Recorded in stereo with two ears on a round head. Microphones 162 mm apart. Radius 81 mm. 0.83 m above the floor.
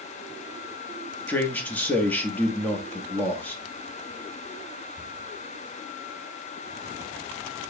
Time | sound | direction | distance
1.3 | a man speaking | 10° left (ahead or behind) | 0.9 m